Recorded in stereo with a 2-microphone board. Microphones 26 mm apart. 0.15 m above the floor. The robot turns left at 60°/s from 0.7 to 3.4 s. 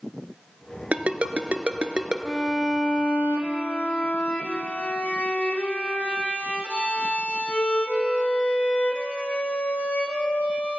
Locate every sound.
0.9 s a ringtone: 50° right (ahead or behind), 1.0 m; by 2.1 s 30° right (ahead or behind), 1.0 m
2.2 s a violin: 175° left, 1.7 m; by 10.8 s 105° left, 1.7 m